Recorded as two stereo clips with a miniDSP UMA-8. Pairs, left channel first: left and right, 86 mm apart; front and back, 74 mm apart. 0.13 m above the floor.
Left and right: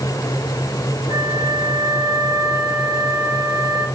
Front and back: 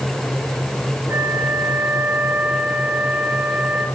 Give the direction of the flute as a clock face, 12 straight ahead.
5 o'clock.